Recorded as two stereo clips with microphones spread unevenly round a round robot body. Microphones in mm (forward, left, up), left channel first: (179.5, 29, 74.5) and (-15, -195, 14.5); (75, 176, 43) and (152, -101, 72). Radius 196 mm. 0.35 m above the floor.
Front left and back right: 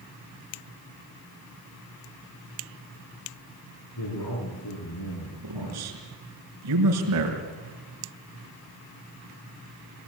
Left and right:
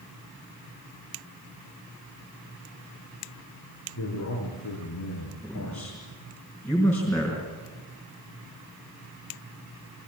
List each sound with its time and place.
4.0 s a man speaking: 85° left, 6 m
5.4 s a man speaking: 170° right, 4.5 m